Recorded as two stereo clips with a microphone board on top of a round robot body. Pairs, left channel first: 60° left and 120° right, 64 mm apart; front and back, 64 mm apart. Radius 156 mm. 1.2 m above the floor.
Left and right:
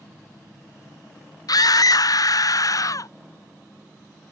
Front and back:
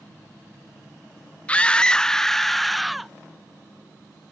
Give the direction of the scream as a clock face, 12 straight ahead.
10 o'clock.